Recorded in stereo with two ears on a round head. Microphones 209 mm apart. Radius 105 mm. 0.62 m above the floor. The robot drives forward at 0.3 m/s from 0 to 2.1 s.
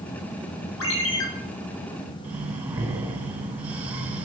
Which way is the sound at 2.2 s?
5° right (ahead or behind).